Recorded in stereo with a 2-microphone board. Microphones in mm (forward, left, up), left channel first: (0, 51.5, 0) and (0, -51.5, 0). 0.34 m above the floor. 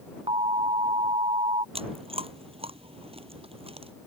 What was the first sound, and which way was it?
An alarm, 65° right (ahead or behind).